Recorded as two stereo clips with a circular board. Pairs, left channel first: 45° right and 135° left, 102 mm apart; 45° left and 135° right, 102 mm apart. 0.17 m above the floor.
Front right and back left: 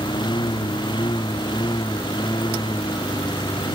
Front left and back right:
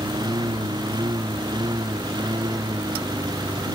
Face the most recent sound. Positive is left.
turn(degrees=-85)